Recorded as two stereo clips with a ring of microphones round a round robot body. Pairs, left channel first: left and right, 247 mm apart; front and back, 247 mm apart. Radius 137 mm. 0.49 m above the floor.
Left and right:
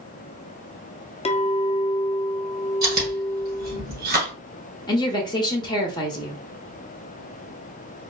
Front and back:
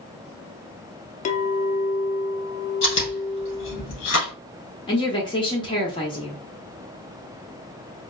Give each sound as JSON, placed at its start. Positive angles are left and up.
{"t": 1.2, "sound": "a clink", "azimuth_deg": 40, "distance_m": 0.5}
{"t": 2.8, "sound": "chewing", "azimuth_deg": -35, "distance_m": 2.5}
{"t": 4.9, "sound": "a woman speaking", "azimuth_deg": 40, "distance_m": 0.9}